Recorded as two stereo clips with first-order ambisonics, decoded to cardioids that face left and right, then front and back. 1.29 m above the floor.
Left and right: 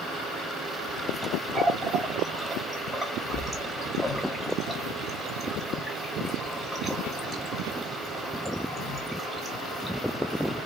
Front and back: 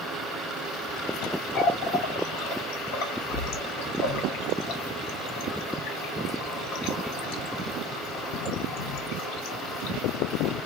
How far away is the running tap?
About 1.0 m.